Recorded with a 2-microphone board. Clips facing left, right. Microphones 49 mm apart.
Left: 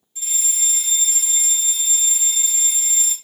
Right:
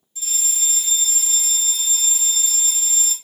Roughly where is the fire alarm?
Centre.